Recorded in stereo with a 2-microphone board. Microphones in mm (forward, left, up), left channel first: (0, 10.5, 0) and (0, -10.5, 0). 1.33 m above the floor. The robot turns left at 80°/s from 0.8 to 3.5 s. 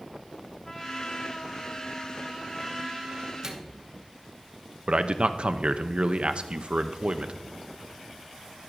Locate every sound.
0.6 s a trumpet: 160° left, 2 m; by 3.3 s 40° right, 2 m
3.4 s a microwave: 25° right (ahead or behind), 1.1 m; by 3.8 s 35° right (ahead or behind), 1.1 m
4.9 s a man speaking: 60° right (ahead or behind), 0.7 m